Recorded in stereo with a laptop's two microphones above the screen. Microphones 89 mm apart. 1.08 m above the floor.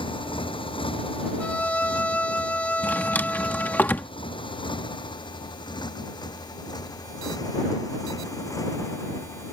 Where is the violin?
15° left (ahead or behind).